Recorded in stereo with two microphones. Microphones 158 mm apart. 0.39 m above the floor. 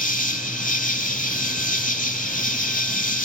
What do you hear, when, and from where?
0.0 s an insect: 55° left (ahead or behind), 0.8 m